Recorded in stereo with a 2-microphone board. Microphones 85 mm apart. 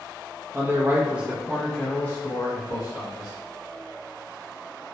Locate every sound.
0.5 s a man speaking: 30° right (ahead or behind), 0.9 m; by 3.3 s 45° left (ahead or behind), 1.2 m